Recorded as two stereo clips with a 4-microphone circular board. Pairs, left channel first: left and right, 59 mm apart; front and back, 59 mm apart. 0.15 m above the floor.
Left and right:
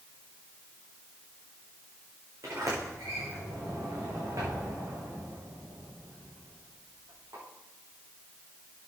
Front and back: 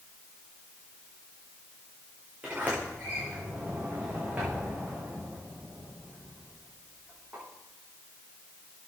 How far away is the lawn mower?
I don't hear a lawn mower.